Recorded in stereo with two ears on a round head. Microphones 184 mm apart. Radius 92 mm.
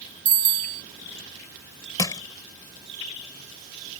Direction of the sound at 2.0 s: 20° left (ahead or behind).